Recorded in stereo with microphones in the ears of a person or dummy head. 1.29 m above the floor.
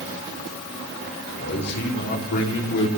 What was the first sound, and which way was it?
A man speaking, 55° left (ahead or behind).